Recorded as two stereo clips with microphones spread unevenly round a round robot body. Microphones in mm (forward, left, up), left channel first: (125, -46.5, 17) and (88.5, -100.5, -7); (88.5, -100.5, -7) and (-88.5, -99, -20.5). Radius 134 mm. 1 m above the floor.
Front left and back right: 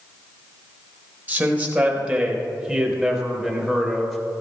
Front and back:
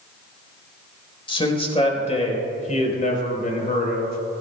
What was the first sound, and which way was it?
A man speaking, 60° right.